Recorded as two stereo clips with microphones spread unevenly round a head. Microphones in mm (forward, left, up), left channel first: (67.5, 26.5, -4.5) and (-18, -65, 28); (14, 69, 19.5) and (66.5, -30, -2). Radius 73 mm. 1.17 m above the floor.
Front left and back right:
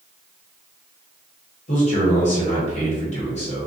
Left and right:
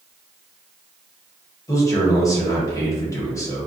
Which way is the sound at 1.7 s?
50° left.